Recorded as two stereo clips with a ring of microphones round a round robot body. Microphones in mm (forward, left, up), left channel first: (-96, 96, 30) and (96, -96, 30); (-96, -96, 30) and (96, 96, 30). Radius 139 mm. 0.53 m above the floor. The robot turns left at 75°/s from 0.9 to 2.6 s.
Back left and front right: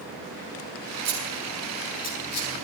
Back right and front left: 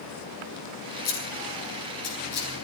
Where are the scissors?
90° right, 7 m; by 2.5 s 165° left, 7 m.